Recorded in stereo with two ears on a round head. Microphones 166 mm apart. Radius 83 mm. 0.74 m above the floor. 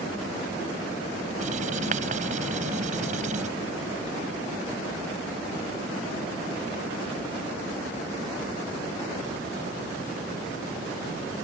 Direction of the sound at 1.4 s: 45° right (ahead or behind).